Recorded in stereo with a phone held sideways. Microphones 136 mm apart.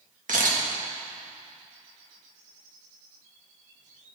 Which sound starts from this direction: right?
A camera shutter, at 0.3 s.